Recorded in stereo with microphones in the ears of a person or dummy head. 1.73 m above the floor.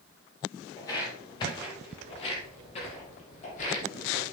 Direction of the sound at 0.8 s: 15° left (ahead or behind).